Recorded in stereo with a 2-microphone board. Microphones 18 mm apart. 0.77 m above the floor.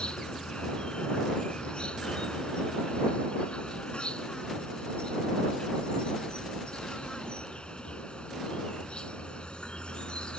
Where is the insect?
60° left (ahead or behind).